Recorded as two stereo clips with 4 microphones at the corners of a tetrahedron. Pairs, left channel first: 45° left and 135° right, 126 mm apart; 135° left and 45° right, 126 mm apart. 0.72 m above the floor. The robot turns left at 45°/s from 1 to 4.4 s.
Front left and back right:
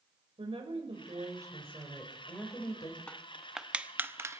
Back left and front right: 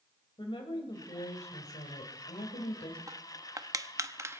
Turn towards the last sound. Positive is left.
turn(degrees=-90)